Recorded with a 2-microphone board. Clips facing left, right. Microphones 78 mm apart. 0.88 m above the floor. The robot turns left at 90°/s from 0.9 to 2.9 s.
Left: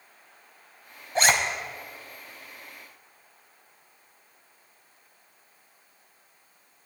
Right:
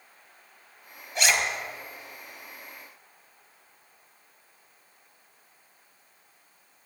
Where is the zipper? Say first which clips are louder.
Left 4 dB; 35° left (ahead or behind), 1.2 m; by 1.3 s 50° left (ahead or behind), 1.2 m.